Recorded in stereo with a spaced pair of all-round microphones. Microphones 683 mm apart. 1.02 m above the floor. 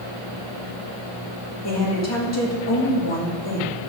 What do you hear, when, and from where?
1.6 s a woman speaking: 20° left (ahead or behind), 1.9 m